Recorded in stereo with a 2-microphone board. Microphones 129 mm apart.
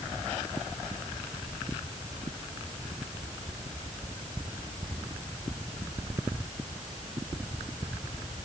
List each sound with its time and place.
Only background noise.